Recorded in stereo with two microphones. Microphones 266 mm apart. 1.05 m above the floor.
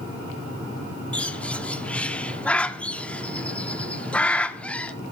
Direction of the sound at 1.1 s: 5° left (ahead or behind).